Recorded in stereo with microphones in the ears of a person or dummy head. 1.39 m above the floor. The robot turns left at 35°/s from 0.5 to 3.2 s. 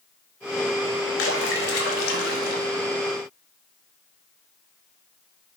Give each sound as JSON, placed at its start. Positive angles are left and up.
{"t": 1.2, "sound": "a splash", "azimuth_deg": 110, "distance_m": 0.6}